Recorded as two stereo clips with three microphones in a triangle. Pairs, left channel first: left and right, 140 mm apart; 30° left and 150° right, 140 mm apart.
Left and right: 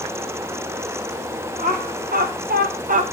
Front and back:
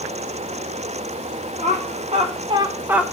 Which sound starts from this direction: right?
Laughter, at 1.6 s.